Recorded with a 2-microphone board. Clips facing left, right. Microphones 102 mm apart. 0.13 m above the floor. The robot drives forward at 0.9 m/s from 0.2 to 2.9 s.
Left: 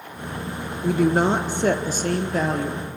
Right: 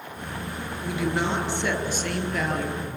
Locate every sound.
0.8 s a woman speaking: 50° left (ahead or behind), 1.5 m; by 2.9 s 30° left (ahead or behind), 2.5 m